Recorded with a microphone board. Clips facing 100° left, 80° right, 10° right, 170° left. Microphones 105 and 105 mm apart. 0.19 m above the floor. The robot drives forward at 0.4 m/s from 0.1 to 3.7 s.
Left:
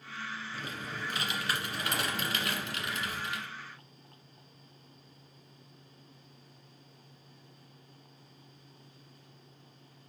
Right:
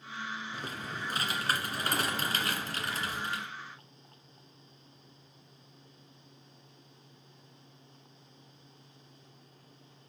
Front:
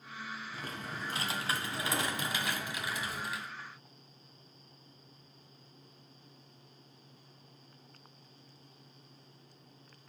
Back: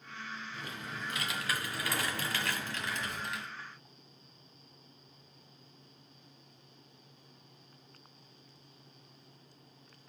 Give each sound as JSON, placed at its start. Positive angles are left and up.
{"t": 0.5, "sound": "typing on a keyboard", "azimuth_deg": -45, "distance_m": 1.9}